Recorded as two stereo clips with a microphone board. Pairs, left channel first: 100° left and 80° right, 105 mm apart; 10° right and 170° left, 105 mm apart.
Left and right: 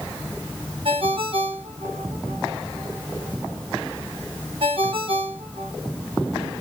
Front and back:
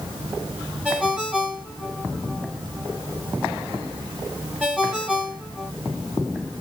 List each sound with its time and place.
0.8 s a ringtone: 110° right, 1.9 m